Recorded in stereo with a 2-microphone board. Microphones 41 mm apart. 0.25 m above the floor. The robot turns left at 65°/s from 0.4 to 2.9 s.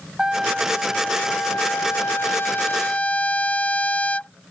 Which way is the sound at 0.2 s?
165° right.